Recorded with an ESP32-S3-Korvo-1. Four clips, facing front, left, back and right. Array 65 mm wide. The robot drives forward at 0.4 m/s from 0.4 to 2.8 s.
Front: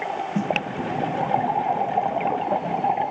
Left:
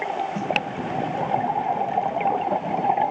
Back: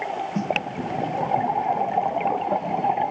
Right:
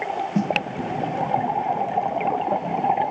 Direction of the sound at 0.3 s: 75° right.